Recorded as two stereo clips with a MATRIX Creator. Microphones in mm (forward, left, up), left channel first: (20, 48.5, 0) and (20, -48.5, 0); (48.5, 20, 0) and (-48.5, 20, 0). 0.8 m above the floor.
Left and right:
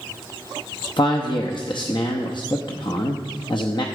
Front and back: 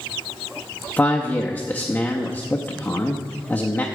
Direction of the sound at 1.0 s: 70° left.